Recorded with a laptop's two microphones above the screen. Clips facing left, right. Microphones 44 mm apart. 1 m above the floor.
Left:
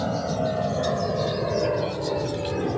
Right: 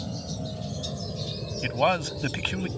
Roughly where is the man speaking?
Right.